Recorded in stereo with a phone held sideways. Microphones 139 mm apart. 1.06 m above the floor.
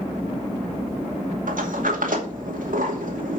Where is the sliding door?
75° right (ahead or behind), 2.5 m.